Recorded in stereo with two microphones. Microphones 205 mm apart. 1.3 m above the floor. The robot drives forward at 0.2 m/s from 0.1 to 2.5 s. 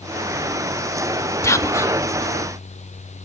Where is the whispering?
15° left (ahead or behind), 0.6 m; by 2.0 s 10° left (ahead or behind), 0.7 m.